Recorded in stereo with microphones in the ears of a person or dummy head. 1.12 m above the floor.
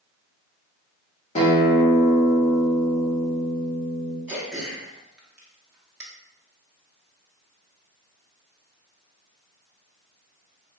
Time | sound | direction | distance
1.4 | a guitar | 35° left (ahead or behind) | 1.4 m
4.3 | throat clearing | 5° right (ahead or behind) | 1.0 m